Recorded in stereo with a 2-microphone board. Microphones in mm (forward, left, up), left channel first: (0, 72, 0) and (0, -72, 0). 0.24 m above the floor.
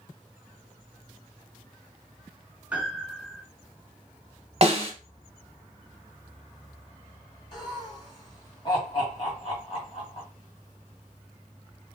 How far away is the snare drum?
About 0.9 m.